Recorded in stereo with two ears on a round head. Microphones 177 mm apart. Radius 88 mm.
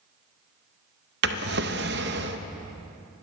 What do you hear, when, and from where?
1.2 s a drawer: 55° right (ahead or behind), 0.6 m